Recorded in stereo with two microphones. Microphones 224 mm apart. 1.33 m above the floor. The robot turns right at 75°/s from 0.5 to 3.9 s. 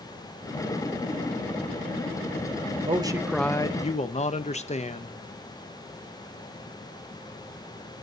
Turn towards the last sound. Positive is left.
turn(degrees=40)